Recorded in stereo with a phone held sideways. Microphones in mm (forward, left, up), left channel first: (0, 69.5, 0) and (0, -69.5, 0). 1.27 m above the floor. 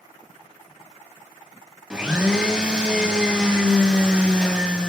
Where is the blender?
5° right (ahead or behind), 0.6 m.